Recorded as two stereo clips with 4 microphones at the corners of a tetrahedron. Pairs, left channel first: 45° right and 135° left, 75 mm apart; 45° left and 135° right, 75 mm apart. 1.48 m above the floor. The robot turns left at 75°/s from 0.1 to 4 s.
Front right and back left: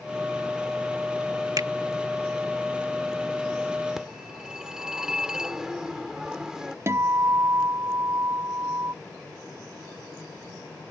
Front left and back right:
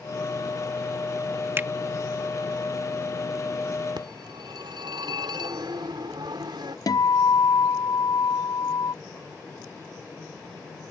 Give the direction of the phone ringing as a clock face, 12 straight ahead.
5 o'clock.